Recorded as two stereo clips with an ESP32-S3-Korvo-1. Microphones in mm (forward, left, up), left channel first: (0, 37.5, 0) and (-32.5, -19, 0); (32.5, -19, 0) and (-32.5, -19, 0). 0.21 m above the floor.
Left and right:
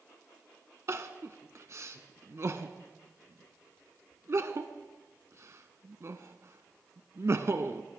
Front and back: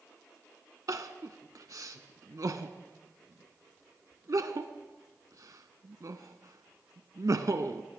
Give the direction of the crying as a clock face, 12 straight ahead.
5 o'clock.